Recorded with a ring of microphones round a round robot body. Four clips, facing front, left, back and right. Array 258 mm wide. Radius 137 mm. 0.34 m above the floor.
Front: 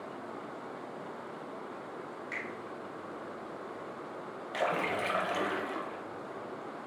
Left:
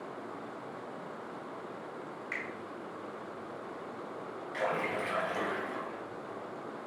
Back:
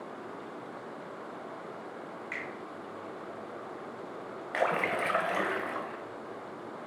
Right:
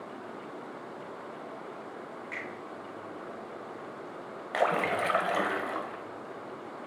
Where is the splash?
110° right, 0.6 m.